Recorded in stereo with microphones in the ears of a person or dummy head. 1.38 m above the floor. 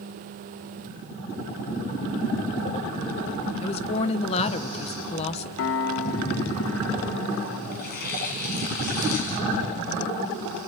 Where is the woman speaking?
30° left (ahead or behind), 1.0 m.